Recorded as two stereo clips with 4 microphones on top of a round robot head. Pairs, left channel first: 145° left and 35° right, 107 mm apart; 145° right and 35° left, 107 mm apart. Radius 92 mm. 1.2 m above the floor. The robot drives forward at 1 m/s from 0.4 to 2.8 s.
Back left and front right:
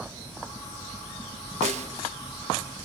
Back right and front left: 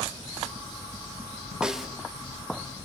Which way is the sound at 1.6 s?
50° right.